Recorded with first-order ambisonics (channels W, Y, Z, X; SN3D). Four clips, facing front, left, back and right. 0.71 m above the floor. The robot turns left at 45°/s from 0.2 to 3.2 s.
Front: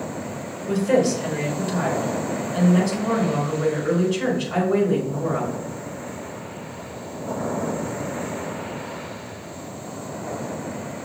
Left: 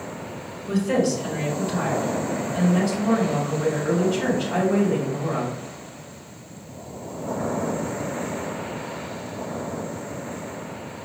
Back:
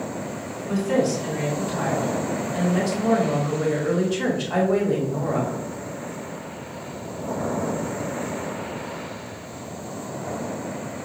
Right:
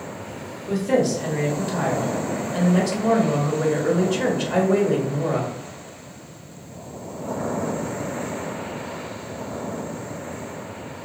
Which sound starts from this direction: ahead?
A woman speaking, at 0.7 s.